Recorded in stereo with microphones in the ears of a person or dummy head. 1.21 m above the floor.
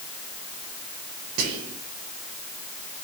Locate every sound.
1.4 s whispering: 70° right (ahead or behind), 0.7 m